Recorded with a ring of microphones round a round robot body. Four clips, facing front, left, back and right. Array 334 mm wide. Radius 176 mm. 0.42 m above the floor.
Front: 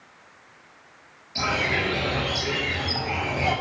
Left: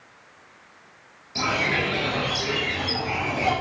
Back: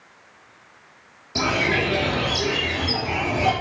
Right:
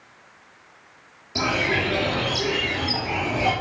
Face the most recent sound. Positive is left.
turn(degrees=-155)